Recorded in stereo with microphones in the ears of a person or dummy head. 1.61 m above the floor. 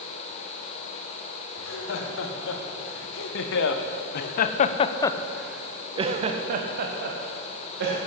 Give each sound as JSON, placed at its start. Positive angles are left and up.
{"t": 1.6, "sound": "laughter", "side_deg": 85, "distance_m": 2.0}